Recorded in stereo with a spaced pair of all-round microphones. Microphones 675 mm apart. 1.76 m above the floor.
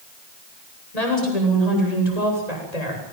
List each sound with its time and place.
0.9 s a woman speaking: 80° left, 10 m